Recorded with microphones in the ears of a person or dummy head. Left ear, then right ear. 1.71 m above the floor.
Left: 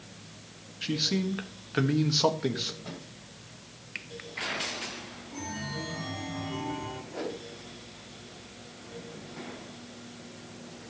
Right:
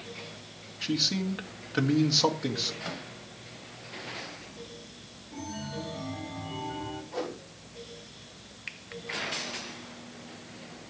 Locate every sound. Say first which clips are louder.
0.8 s a man speaking: right 1 dB; 5° right (ahead or behind), 1.4 m
2.8 s a microwave: right 6 dB; 65° right (ahead or behind), 2 m
5.3 s a chime: left 1 dB; 10° left (ahead or behind), 1.8 m
7.1 s a whoosh: right 1 dB; 35° right (ahead or behind), 3.5 m